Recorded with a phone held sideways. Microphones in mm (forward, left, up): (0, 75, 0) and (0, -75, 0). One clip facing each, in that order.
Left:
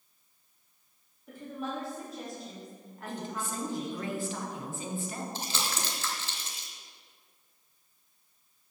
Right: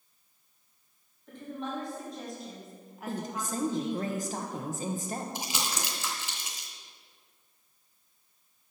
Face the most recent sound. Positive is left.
turn(degrees=-15)  # may be behind; listen again after turning